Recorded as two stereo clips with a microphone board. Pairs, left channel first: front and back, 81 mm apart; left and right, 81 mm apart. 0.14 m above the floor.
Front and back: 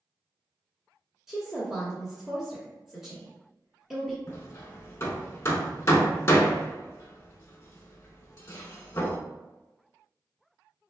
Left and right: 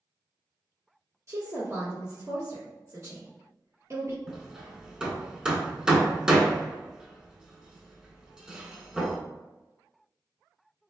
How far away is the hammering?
About 0.5 m.